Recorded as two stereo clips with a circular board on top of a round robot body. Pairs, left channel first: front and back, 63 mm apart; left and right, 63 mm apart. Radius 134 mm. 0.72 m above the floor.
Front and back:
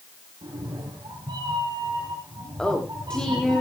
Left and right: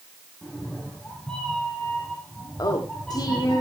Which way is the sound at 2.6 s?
80° left.